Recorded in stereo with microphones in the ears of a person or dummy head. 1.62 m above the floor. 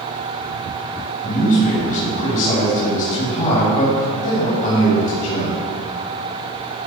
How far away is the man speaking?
About 3.5 m.